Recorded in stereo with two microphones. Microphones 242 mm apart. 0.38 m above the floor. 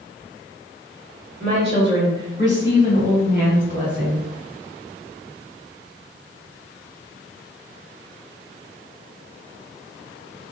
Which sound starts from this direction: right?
A woman speaking, at 1.4 s.